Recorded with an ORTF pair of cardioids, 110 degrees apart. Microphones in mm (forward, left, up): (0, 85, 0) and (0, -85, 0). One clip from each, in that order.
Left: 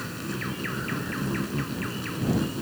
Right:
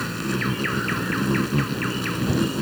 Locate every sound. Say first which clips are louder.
0.0 s an insect: right 7 dB; 40° right